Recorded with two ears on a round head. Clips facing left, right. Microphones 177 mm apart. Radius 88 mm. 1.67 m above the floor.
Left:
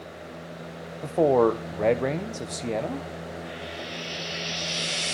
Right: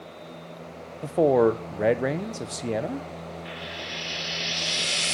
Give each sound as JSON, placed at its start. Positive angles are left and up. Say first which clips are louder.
{"t": 1.0, "sound": "a man speaking", "louder": "right 1 dB", "side_deg": -5, "distance_m": 1.1}
{"t": 3.5, "sound": "frying", "louder": "left 2 dB", "side_deg": -70, "distance_m": 3.0}